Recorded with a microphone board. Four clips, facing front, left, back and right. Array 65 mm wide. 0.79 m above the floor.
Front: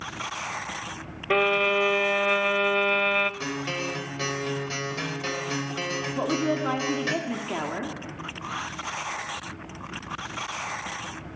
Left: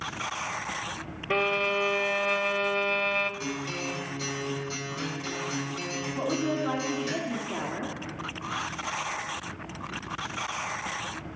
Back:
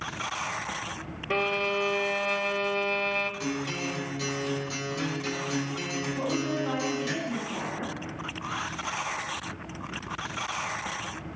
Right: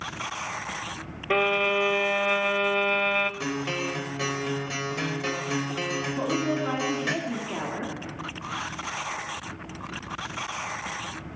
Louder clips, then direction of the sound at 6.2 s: Right 1 dB, front 4 dB; straight ahead.